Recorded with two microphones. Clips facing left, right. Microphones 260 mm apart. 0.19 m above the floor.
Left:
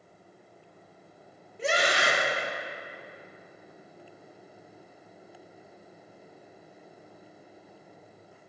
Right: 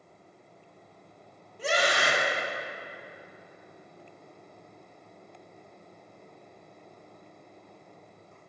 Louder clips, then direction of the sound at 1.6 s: Even; 25° left (ahead or behind).